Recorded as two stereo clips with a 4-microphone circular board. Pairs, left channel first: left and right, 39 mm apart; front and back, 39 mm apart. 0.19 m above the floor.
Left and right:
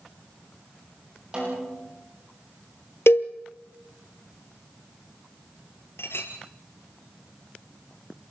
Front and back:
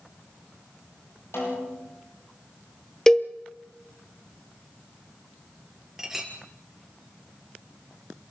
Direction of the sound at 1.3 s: 20° right.